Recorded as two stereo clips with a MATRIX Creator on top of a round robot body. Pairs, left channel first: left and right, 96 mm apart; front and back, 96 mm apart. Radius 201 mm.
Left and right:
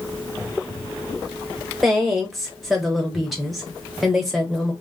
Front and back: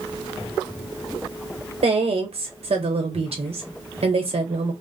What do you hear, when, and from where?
1.8 s a woman speaking: straight behind, 1.0 m